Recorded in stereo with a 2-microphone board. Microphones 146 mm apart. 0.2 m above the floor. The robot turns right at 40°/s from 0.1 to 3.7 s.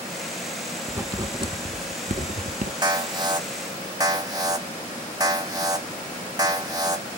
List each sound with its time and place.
0.9 s writing: 15° right (ahead or behind), 0.6 m; by 2.7 s 70° right (ahead or behind), 0.6 m
2.8 s an alarm: 100° right, 0.7 m; by 7.1 s 65° right, 0.7 m